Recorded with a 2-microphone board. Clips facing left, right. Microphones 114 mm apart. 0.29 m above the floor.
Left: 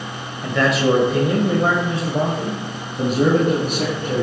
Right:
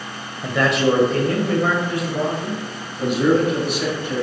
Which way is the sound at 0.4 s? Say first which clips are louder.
Even; 5° right (ahead or behind).